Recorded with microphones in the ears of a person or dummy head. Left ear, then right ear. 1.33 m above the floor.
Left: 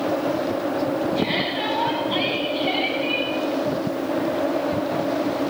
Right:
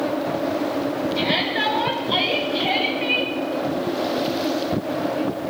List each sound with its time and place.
1.1 s a shout: 55° right (ahead or behind), 7.5 m